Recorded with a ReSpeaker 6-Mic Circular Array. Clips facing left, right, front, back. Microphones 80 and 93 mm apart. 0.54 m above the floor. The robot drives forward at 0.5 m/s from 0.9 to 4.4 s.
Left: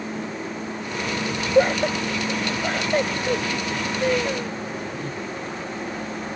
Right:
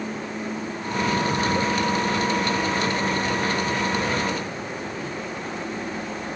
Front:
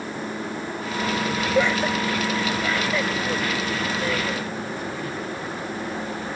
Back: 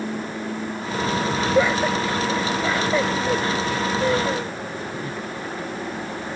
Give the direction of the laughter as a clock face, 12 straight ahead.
9 o'clock.